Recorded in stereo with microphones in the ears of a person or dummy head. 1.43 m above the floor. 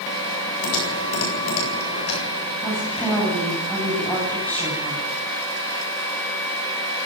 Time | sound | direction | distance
0.6 | typing on a keyboard | 85° left | 8 m
2.6 | a woman speaking | 5° left (ahead or behind) | 9.5 m